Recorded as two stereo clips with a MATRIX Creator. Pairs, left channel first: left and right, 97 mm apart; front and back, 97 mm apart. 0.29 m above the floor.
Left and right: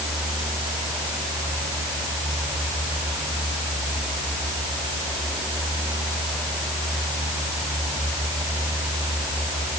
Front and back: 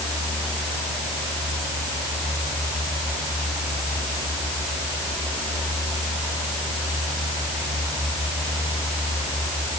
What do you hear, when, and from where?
Only background noise.